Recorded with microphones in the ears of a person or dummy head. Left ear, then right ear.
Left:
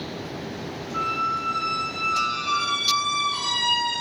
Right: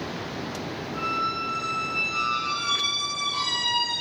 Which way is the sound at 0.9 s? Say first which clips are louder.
Left 2 dB; 45° left (ahead or behind).